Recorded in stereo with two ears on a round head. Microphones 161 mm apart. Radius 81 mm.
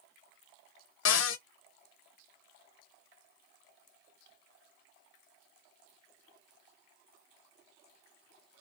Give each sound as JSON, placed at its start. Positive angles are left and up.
{"t": 1.1, "sound": "a cupboard door", "side_deg": 75, "distance_m": 0.5}